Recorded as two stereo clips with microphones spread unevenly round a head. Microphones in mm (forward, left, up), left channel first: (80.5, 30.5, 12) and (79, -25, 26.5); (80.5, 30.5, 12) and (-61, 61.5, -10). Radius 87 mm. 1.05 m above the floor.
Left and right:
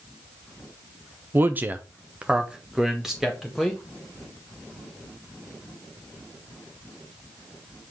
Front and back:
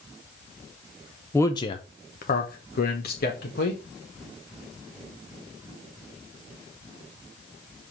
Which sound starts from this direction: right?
A man speaking, at 1.3 s.